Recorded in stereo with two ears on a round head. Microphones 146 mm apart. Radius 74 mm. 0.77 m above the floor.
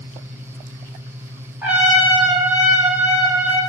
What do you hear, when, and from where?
1.6 s a trumpet: 10° right (ahead or behind), 1.4 m